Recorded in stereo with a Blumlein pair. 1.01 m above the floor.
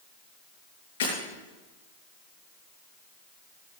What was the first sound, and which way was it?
Breaking glass, 60° left.